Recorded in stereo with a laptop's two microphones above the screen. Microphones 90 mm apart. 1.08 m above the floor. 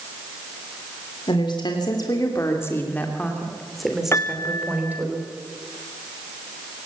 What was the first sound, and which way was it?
A woman speaking, 65° left (ahead or behind).